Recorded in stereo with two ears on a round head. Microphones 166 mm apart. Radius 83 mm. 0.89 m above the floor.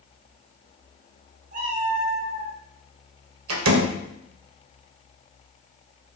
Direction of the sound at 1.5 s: 45° right (ahead or behind).